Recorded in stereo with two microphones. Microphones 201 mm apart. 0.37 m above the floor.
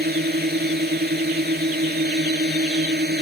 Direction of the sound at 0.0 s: 55° right (ahead or behind).